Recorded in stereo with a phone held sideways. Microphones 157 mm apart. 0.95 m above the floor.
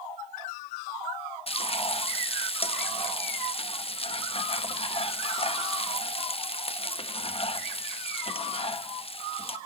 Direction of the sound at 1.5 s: 40° left (ahead or behind).